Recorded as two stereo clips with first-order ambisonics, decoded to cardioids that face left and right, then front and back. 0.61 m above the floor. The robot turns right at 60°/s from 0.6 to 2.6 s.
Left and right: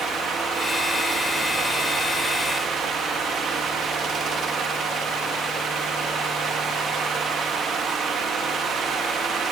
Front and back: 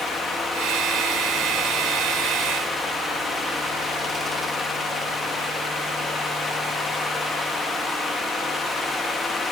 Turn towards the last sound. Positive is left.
No sound to turn to.